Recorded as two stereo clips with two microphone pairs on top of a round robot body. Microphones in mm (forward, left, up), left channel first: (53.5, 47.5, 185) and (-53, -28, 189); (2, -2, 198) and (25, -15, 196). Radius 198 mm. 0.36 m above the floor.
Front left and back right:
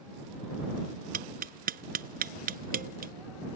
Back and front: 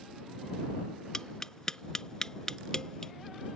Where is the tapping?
140° right.